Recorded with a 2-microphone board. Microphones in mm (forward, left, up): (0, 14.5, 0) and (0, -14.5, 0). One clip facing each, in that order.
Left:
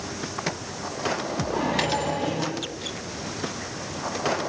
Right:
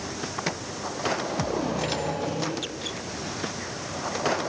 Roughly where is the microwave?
Left.